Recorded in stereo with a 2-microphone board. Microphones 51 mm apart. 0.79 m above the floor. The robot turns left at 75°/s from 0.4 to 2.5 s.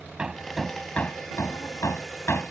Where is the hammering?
15° right (ahead or behind); by 2.5 s 40° left (ahead or behind).